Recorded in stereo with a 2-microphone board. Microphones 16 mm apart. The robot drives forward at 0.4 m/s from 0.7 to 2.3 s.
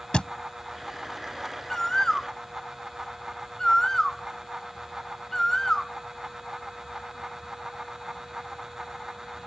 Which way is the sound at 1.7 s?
30° left (ahead or behind).